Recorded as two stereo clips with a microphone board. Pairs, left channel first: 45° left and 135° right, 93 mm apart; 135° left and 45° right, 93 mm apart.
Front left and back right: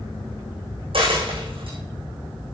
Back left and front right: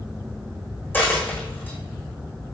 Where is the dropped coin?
155° right, 5.5 m.